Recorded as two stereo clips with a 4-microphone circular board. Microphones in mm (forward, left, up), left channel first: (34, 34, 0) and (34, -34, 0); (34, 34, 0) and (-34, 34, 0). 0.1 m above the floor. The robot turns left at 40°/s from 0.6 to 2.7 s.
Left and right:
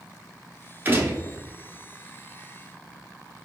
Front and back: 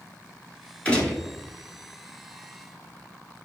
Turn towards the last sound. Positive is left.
turn(degrees=-130)